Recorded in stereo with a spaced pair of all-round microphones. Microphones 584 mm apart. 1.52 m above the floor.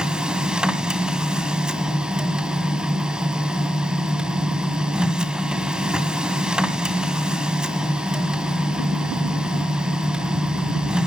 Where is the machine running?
Centre (ahead or behind), 1.7 m.